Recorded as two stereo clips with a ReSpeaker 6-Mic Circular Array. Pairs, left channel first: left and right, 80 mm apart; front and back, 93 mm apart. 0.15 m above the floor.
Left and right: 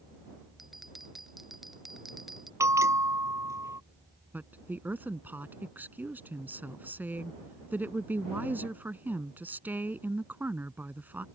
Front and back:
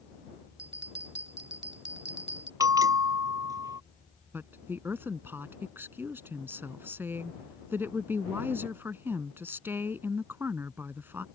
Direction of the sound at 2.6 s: 135° right.